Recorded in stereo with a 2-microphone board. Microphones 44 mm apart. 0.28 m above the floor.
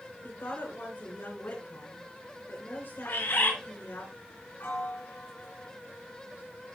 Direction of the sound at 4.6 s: 55° left (ahead or behind).